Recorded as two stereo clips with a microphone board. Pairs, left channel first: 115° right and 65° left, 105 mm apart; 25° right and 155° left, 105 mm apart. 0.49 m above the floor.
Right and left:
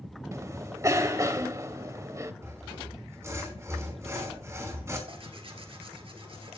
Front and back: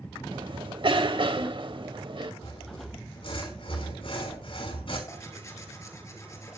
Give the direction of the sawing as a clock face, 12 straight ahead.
12 o'clock.